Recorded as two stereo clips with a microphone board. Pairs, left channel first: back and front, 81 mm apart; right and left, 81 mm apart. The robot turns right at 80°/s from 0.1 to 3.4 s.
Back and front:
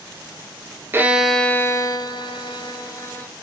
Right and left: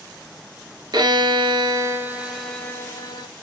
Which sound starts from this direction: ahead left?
A violin, at 0.9 s.